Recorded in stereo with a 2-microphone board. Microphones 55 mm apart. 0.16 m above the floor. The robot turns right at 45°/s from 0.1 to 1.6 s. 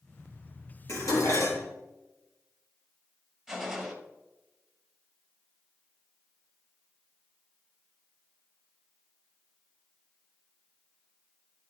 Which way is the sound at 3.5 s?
5° right (ahead or behind).